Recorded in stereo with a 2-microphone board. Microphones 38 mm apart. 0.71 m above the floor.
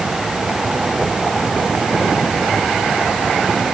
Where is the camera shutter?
I don't hear a camera shutter.